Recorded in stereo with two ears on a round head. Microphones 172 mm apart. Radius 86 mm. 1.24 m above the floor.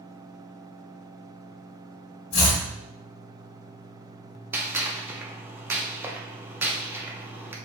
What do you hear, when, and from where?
2.3 s chopping: 60° left (ahead or behind), 1.7 m
4.5 s a gunshot: 10° right (ahead or behind), 0.5 m